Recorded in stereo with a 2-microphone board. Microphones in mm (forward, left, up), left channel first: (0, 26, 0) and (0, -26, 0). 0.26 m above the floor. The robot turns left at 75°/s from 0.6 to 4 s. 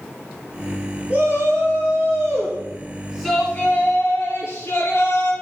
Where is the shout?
20° right, 4.5 m; by 5.3 s 120° left, 4.5 m.